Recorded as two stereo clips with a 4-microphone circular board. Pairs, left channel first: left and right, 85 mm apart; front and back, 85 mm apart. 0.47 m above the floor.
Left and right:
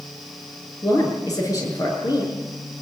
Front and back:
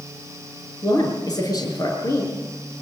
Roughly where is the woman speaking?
Ahead left.